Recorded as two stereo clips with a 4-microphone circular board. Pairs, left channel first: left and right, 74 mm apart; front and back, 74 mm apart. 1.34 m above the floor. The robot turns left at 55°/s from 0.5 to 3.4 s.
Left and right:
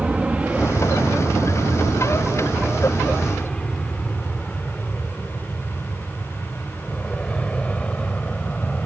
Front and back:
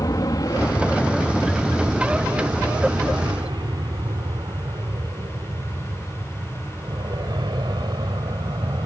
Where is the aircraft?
15° right; by 8.9 s 165° left.